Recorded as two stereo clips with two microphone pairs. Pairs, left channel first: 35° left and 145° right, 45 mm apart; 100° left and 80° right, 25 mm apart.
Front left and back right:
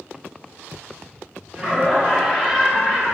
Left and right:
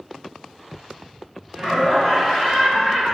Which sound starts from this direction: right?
Laughter, at 1.5 s.